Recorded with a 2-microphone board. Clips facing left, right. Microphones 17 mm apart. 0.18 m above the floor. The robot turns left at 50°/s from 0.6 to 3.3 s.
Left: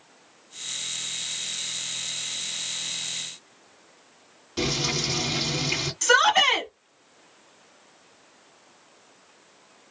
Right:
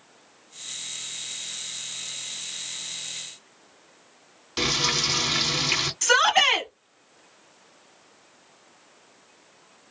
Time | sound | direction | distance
4.6 | frying | 35° right (ahead or behind) | 1.8 m
6.0 | a shout | 5° right (ahead or behind) | 1.1 m